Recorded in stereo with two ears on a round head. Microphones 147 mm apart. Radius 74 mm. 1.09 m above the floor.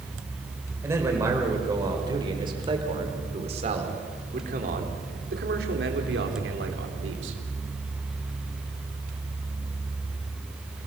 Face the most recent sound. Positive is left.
turn(degrees=-85)